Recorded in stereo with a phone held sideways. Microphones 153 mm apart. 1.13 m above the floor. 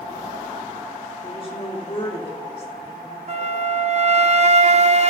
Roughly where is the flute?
Right.